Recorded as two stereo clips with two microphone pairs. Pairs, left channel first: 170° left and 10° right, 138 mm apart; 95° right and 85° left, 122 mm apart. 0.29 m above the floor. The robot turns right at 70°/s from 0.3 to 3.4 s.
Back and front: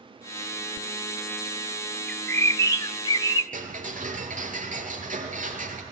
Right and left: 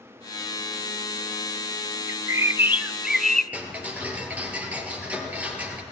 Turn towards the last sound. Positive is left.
turn(degrees=5)